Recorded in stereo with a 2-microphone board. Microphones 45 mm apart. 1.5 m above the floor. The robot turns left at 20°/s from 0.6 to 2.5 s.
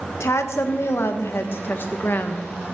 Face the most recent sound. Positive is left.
turn(degrees=35)